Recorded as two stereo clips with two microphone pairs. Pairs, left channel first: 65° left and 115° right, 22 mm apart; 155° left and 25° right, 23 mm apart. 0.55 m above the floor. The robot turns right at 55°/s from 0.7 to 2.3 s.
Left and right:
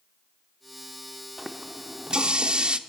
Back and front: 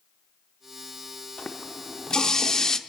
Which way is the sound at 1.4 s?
170° left.